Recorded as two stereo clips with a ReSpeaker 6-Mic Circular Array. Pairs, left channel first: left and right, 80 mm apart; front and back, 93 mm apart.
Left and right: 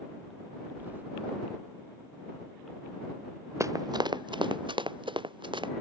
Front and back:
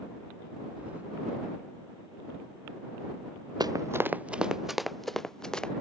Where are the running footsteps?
140° right; by 5.7 s 80° right.